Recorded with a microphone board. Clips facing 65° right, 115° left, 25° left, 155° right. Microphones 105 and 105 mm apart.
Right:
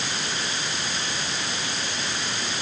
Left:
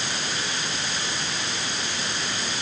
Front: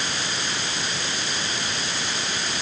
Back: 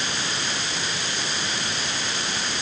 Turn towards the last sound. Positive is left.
No sound to turn to.